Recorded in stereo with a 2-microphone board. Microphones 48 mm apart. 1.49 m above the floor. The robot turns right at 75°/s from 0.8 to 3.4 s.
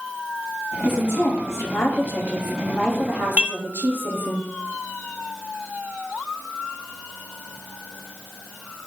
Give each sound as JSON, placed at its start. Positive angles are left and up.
{"t": 0.8, "sound": "a woman speaking", "azimuth_deg": 40, "distance_m": 1.0}
{"t": 3.4, "sound": "dishes clattering", "side_deg": -25, "distance_m": 0.5}